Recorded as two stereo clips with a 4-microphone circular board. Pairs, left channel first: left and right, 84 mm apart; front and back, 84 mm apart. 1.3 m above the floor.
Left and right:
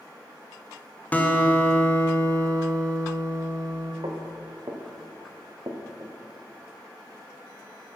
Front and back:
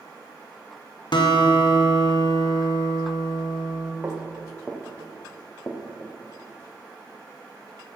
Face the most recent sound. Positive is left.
turn(degrees=-40)